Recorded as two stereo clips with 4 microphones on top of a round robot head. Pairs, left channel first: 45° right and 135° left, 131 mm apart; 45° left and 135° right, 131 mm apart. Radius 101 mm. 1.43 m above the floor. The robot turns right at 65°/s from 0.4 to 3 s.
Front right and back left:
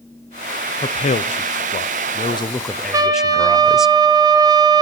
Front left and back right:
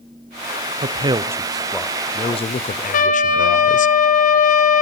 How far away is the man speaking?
About 0.6 m.